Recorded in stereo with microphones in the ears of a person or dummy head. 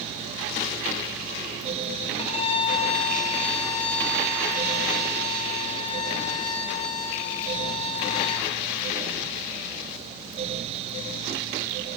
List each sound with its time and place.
2.2 s a violin: 30° left (ahead or behind), 2 m